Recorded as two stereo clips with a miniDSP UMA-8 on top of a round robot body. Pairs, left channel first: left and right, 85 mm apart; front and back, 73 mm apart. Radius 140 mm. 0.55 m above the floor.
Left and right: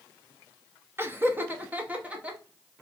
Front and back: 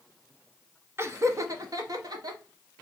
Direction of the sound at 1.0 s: 140° right.